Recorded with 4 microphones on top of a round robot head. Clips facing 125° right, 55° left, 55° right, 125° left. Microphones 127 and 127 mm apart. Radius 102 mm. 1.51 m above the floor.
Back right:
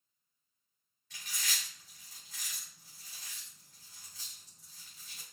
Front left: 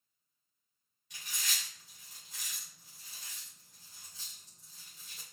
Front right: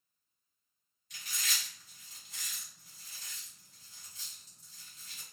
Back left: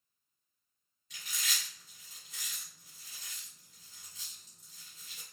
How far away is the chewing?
About 1.7 m.